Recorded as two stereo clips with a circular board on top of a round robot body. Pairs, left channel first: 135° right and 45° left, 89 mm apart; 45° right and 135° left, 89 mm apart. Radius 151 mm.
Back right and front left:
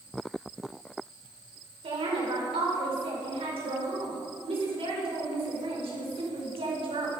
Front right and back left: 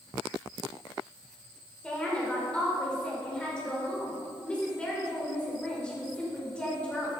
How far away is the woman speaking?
About 5 m.